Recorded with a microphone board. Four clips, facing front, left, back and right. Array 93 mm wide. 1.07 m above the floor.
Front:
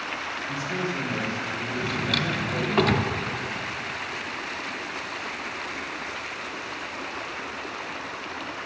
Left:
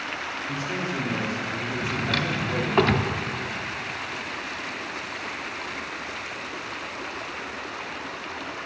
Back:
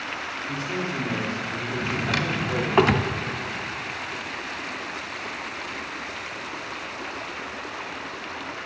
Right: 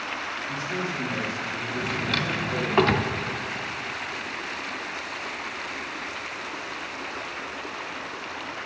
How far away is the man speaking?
About 2.5 m.